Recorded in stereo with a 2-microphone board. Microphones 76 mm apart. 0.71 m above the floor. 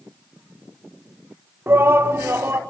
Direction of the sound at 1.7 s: 30° right (ahead or behind).